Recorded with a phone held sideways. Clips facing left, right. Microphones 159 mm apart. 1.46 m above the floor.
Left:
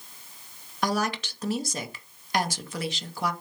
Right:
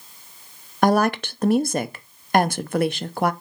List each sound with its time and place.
0.8 s a woman speaking: 60° right (ahead or behind), 0.7 m